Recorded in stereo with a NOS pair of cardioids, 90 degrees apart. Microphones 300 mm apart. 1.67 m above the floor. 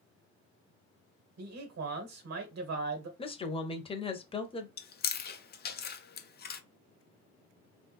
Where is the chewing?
35° left, 0.7 m.